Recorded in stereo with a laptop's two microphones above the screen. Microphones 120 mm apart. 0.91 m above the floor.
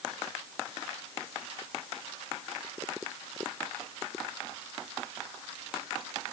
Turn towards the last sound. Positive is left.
No sound to turn to.